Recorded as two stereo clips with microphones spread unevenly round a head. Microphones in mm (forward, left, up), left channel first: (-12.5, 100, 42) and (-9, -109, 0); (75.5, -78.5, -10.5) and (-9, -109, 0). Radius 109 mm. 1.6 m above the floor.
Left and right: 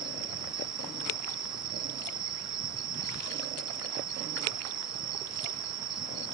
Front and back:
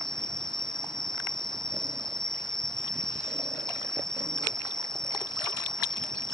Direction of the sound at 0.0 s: 15° right.